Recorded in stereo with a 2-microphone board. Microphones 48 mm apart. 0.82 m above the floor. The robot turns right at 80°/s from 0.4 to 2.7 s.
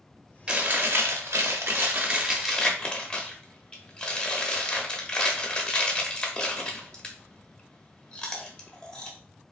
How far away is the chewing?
About 0.8 m.